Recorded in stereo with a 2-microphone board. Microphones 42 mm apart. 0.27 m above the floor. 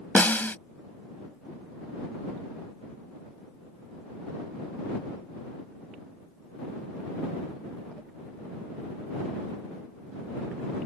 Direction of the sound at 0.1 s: 50° left (ahead or behind).